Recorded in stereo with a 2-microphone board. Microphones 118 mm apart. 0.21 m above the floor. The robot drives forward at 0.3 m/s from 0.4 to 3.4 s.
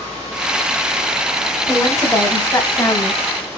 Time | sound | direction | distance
1.7 | a woman speaking | 25° left (ahead or behind) | 1.2 m